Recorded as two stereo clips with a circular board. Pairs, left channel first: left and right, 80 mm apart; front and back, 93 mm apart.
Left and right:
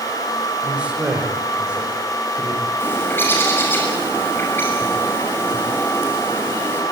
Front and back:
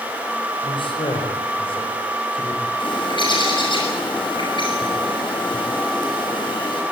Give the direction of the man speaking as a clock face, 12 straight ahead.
12 o'clock.